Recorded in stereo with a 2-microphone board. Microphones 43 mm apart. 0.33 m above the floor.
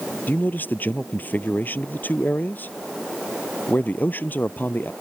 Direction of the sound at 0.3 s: 45° left (ahead or behind).